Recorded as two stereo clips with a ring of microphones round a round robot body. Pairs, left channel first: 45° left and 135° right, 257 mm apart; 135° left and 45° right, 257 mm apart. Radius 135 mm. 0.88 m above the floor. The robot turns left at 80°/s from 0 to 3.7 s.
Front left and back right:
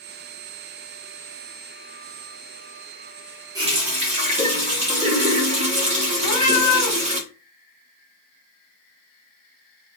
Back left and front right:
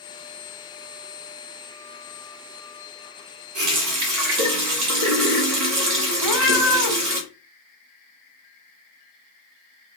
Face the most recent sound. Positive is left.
turn(degrees=50)